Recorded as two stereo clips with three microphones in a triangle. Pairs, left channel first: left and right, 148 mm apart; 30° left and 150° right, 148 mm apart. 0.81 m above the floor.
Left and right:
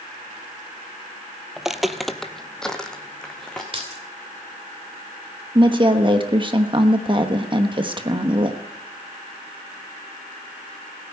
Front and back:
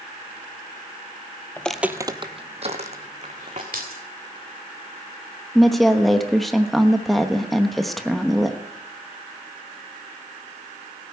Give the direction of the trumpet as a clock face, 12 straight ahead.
I don't hear a trumpet.